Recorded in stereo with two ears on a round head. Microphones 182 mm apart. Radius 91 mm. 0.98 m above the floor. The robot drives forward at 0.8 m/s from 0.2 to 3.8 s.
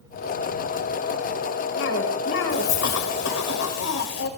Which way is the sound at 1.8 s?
65° left (ahead or behind).